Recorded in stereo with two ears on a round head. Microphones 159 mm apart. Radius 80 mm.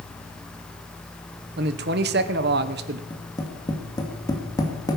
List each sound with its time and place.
1.6 s a man speaking: 60° right (ahead or behind), 1.0 m
3.1 s tapping: 20° left (ahead or behind), 2.5 m